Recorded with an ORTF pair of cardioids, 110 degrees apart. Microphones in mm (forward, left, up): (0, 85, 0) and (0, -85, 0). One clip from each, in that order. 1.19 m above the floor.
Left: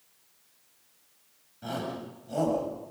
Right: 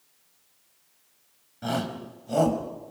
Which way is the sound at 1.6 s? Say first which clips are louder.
Right 4 dB; 40° right.